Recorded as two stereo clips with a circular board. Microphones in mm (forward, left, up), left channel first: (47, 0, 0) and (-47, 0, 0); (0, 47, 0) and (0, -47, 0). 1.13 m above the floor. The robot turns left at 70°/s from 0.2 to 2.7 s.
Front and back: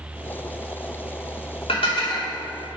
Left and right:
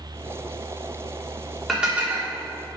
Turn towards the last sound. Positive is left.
turn(degrees=-70)